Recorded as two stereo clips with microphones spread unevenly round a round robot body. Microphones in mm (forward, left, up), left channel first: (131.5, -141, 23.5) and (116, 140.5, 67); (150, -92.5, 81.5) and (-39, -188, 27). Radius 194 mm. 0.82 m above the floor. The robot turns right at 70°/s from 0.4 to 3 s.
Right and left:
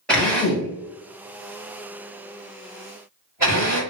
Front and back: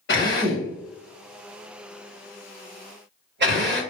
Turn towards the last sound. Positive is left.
turn(degrees=180)